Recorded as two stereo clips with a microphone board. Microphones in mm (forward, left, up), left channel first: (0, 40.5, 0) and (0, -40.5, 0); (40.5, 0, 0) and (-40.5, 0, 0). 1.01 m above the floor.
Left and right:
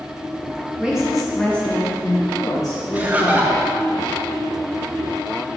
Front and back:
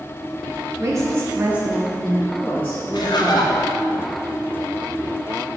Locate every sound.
0.8 s a woman speaking: 165° right, 0.7 m; by 3.9 s 50° left, 1.3 m
2.9 s laughter: 20° right, 0.6 m